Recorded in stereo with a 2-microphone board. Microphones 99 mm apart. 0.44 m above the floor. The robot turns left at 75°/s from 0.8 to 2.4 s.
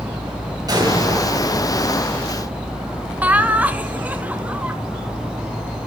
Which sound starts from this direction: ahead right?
An explosion, at 0.7 s.